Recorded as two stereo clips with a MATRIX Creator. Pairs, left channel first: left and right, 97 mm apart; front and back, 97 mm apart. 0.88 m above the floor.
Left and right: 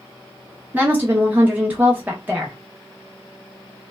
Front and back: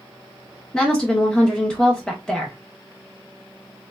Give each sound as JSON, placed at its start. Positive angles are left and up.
{"t": 0.7, "sound": "a woman speaking", "azimuth_deg": -60, "distance_m": 0.7}